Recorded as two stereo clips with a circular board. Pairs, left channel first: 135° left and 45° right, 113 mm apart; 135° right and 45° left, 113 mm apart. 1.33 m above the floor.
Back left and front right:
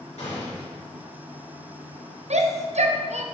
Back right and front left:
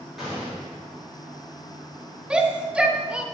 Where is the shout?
35° right, 0.9 m.